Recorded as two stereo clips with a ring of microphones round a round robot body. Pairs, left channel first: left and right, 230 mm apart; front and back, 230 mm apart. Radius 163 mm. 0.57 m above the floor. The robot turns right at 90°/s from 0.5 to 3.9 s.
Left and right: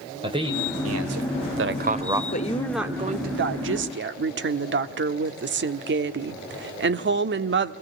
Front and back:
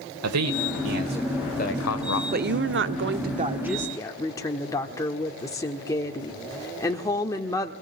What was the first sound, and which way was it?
A man speaking, 165° right.